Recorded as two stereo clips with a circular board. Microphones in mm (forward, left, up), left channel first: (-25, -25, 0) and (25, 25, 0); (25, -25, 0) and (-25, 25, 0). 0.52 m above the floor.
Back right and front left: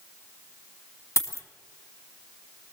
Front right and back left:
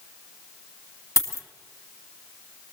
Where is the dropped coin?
90° right, 2.0 m.